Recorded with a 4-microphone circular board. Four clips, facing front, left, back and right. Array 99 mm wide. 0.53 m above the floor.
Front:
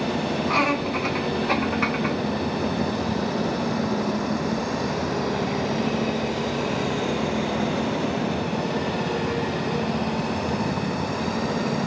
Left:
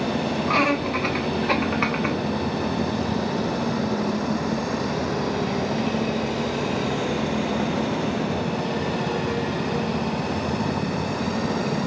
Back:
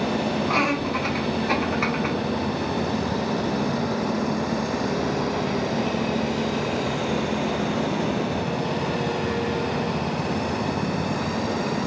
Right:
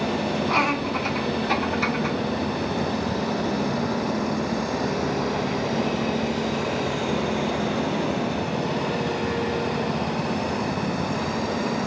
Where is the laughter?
100° left, 2.5 m; by 2.2 s 85° left, 1.1 m.